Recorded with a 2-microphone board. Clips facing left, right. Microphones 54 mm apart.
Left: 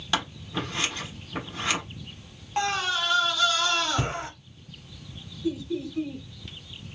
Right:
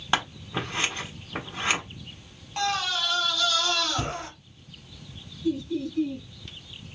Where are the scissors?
30° right (ahead or behind), 1.3 m.